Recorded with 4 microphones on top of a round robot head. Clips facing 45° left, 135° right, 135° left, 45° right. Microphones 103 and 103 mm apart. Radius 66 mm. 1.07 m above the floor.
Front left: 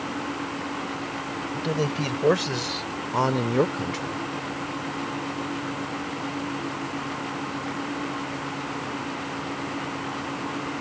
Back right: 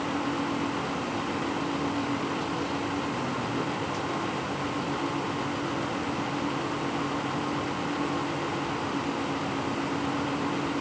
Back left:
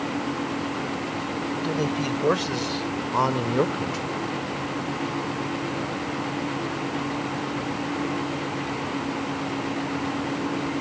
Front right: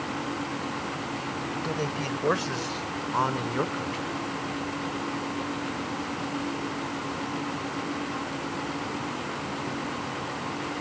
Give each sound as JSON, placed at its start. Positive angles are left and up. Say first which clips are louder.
{"t": 1.5, "sound": "a man speaking", "louder": "front left 2 dB, back left 5 dB", "azimuth_deg": 55}